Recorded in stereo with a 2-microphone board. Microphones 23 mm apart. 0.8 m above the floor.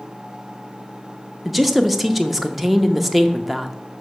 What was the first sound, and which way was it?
A woman speaking, 5° right (ahead or behind).